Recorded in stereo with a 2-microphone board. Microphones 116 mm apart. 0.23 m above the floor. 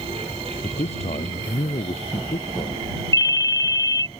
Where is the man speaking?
70° left (ahead or behind).